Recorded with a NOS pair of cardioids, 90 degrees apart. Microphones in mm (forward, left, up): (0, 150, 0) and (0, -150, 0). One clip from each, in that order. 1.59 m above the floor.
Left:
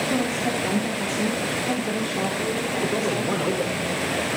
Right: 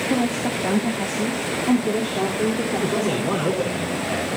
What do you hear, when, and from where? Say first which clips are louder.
0.1 s a woman speaking: right 1 dB; 25° right, 3.5 m; by 3.4 s 65° right, 5 m
2.8 s a man speaking: right 1 dB; 20° right, 5 m